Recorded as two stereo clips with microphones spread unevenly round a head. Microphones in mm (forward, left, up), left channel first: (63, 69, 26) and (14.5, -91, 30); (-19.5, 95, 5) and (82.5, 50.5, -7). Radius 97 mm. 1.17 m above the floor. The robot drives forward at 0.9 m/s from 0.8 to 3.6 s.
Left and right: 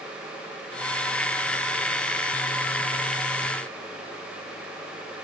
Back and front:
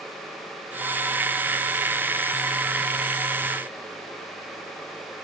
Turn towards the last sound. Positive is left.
No sound to turn to.